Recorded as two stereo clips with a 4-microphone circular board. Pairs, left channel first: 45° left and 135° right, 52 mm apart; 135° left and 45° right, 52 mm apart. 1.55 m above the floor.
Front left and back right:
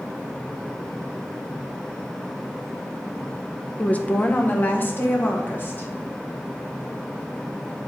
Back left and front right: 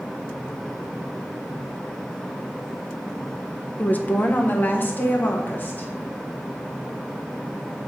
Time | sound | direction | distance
3.8 | a woman speaking | 95° left | 0.6 m